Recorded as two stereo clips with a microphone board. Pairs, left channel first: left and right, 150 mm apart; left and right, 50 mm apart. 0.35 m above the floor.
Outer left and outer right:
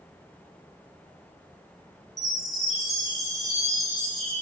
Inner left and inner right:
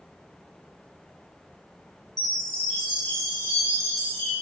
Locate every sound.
2.2 s a chime: centre (ahead or behind), 9 m